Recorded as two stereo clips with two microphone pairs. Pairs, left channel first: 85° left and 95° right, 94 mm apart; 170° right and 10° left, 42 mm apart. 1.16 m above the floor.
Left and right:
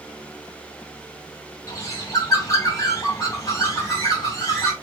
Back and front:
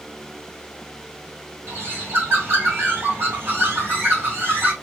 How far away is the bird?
About 2.5 m.